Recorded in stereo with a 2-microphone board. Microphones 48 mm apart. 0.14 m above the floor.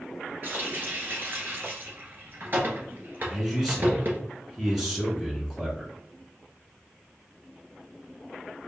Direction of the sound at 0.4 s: 45° right (ahead or behind).